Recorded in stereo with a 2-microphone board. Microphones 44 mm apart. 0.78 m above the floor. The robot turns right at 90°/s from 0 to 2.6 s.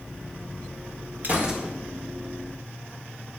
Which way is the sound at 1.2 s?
40° right.